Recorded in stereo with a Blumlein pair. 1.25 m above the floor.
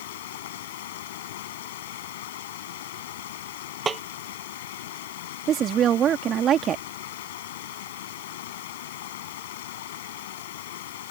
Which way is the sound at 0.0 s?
55° left.